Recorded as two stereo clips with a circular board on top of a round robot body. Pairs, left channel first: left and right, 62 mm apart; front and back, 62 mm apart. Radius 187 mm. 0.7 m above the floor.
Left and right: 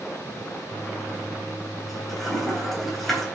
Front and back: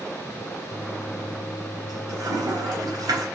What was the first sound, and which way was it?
A toilet flushing, straight behind.